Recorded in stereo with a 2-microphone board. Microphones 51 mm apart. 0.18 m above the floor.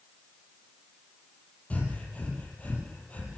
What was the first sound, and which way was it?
Breathing, 30° left (ahead or behind).